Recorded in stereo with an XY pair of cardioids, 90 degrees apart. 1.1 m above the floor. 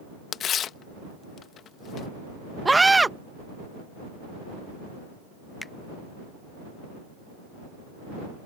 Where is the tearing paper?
70° left.